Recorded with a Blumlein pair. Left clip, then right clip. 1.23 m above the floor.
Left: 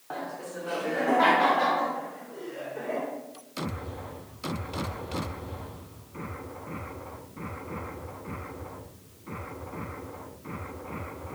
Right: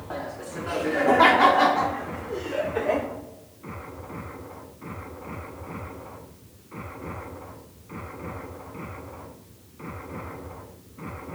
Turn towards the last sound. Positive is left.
turn(degrees=-65)